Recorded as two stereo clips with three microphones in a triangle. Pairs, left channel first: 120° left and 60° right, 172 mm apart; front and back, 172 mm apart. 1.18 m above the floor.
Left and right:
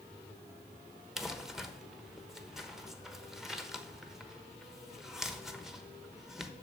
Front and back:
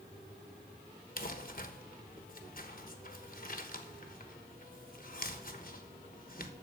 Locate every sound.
1.2 s crumpling: 30° left, 1.2 m